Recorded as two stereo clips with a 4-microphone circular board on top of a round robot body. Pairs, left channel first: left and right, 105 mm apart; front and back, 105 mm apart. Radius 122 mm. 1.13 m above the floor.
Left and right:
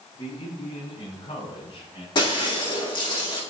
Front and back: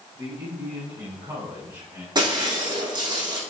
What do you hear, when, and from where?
0.1 s a man speaking: 130° left, 8.5 m; by 2.0 s 120° left, 8.5 m
2.1 s breaking glass: 130° left, 7 m